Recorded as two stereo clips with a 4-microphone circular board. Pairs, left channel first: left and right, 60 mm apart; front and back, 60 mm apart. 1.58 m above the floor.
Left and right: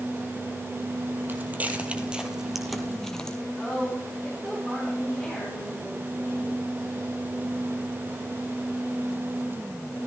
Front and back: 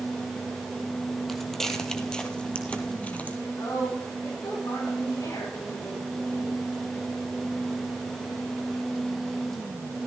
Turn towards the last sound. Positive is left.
turn(degrees=-5)